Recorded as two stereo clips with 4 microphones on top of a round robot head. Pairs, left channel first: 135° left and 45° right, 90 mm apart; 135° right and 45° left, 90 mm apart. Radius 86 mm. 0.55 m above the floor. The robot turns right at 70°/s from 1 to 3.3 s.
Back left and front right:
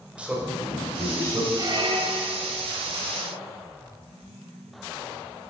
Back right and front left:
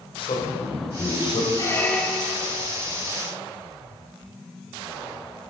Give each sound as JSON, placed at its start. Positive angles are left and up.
{"t": 0.2, "sound": "a man speaking", "azimuth_deg": -120, "distance_m": 1.8}
{"t": 1.6, "sound": "a squeak", "azimuth_deg": -90, "distance_m": 1.1}